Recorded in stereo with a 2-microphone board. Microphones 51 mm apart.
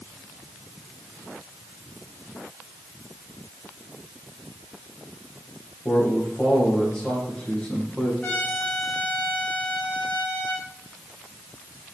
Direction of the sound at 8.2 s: 25° left (ahead or behind).